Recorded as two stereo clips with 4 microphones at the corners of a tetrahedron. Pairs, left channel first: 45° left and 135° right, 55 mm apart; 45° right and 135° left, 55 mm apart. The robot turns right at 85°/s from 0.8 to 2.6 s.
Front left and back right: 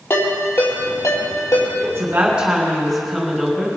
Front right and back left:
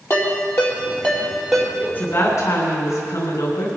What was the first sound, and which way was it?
A ringtone, 5° right.